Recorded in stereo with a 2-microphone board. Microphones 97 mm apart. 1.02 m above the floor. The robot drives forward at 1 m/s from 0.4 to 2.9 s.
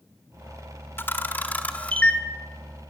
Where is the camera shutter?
25° left (ahead or behind), 1.4 m; by 2.2 s 10° left (ahead or behind), 2.5 m.